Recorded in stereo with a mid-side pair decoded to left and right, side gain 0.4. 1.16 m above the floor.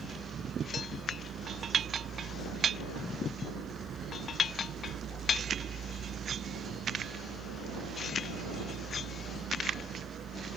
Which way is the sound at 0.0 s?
60° right.